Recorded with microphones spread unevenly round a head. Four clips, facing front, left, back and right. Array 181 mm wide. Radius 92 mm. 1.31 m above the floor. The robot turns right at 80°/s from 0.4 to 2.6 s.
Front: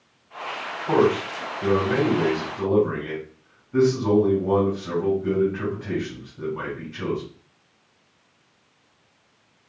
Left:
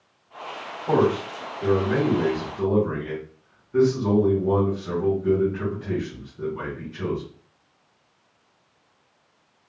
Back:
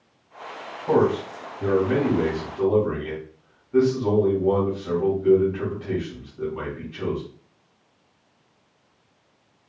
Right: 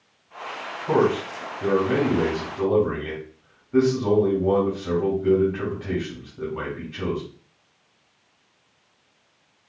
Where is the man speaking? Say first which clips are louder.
Even, even; 140° left, 3 m; by 7.2 s 80° right, 3 m.